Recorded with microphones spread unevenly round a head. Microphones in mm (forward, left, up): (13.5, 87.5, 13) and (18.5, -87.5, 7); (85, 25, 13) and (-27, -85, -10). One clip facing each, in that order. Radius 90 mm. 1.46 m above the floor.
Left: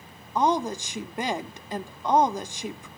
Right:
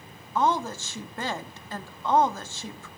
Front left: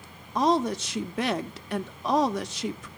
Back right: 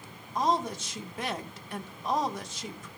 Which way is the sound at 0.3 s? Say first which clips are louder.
Left 2 dB, front left 5 dB; 15° left.